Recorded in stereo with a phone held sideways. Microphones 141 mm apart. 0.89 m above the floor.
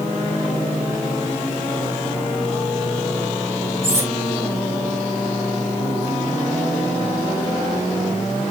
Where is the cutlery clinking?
20° right (ahead or behind), 8.5 m.